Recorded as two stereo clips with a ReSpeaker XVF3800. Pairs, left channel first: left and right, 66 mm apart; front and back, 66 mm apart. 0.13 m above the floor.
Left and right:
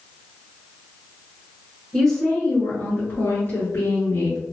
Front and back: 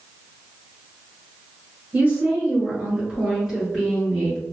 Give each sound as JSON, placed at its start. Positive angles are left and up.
{"t": 1.9, "sound": "a woman speaking", "azimuth_deg": 170, "distance_m": 1.7}